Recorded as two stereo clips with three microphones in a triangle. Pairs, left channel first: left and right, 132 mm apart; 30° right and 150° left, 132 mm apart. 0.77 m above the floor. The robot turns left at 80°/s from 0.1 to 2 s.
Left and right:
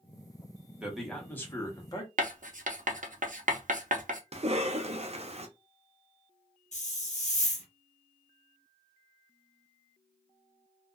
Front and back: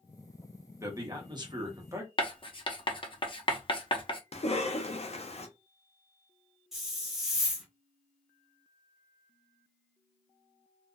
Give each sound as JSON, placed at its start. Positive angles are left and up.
{"t": 0.8, "sound": "a man speaking", "azimuth_deg": -165, "distance_m": 0.9}
{"t": 2.2, "sound": "writing", "azimuth_deg": -80, "distance_m": 0.6}
{"t": 4.3, "sound": "a cough", "azimuth_deg": -60, "distance_m": 0.6}
{"t": 6.7, "sound": "a hiss", "azimuth_deg": 65, "distance_m": 0.7}